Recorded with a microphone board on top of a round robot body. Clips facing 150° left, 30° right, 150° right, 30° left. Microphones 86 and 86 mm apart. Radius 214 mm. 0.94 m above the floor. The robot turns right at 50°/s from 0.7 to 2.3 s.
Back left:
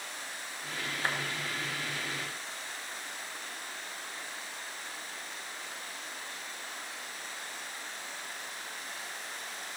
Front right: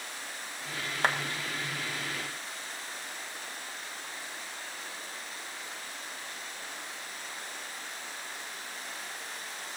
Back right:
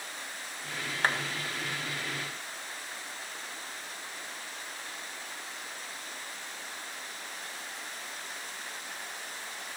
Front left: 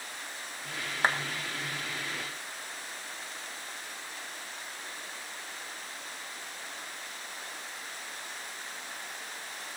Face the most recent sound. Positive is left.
turn(degrees=25)